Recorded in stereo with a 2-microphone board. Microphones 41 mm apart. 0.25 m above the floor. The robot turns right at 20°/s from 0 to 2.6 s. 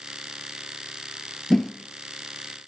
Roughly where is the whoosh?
Centre.